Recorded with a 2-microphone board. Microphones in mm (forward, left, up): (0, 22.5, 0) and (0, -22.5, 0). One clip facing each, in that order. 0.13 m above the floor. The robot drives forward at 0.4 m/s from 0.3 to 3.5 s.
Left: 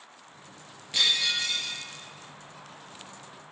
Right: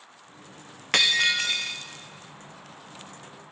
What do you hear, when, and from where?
0.9 s breaking glass: 70° right (ahead or behind), 1.3 m; by 1.7 s 60° right (ahead or behind), 1.5 m